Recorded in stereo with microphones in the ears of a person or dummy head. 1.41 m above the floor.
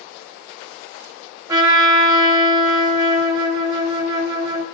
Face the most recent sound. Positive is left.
turn(degrees=-25)  # may be behind; listen again after turning